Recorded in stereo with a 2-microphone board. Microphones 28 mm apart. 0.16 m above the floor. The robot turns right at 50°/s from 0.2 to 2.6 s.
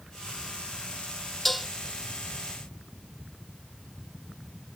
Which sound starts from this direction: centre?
Dishes clattering, at 1.4 s.